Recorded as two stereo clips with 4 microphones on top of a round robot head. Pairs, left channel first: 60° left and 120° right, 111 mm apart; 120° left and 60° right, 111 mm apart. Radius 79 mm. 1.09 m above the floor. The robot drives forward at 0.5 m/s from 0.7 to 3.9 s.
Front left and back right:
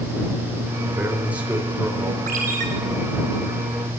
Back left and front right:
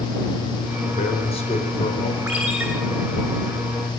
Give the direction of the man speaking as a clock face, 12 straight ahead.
7 o'clock.